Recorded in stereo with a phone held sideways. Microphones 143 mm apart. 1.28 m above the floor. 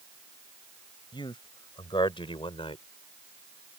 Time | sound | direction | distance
1.1 | a man speaking | 35° left (ahead or behind) | ?